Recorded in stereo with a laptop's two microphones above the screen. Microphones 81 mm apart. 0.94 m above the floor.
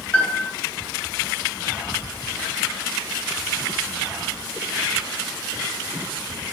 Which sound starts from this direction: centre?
A piano, at 0.1 s.